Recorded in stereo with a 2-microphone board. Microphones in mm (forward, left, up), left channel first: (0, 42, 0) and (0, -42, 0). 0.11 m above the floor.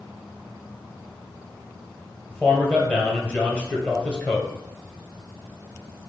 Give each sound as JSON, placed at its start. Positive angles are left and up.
{"t": 2.3, "sound": "a man speaking", "side_deg": 15, "distance_m": 1.7}